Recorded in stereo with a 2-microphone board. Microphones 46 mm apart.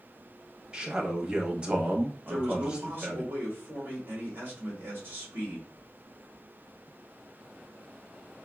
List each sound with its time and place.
0.7 s a man speaking: 25° right (ahead or behind), 0.9 m
2.2 s a man speaking: 50° right (ahead or behind), 1.6 m